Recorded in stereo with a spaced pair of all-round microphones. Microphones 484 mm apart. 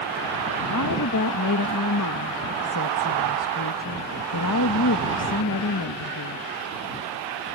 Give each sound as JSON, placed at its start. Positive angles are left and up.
{"t": 0.7, "sound": "a woman speaking", "side_deg": 40}